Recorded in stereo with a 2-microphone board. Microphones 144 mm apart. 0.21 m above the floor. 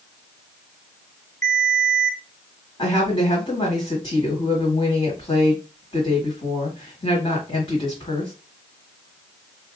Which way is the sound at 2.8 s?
35° left (ahead or behind).